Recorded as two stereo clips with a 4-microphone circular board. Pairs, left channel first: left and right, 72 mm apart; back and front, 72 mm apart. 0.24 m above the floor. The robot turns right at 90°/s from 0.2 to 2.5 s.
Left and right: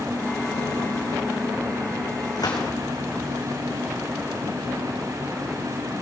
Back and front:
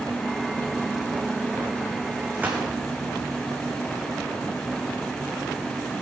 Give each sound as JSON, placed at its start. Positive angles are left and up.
{"t": 2.4, "sound": "a gunshot", "azimuth_deg": 60, "distance_m": 3.5}